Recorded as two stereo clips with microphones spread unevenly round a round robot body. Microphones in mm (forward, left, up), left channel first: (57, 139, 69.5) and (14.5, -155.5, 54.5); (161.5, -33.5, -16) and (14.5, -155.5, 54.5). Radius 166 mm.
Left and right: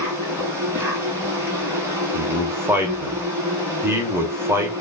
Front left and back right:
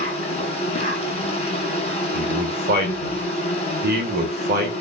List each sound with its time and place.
0.0 s an insect: 15° right, 1.4 m
2.1 s a man speaking: 170° right, 0.9 m